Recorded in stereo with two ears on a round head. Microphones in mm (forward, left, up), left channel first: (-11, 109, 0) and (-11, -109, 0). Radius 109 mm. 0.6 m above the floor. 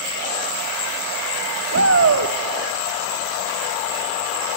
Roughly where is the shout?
Right.